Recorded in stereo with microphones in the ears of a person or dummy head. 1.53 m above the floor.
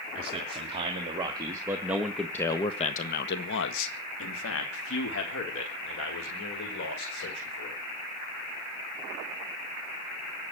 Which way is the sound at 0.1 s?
35° right (ahead or behind).